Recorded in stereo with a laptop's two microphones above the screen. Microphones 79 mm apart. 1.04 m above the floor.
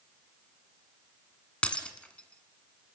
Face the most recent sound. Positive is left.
turn(degrees=15)  # may be behind; listen again after turning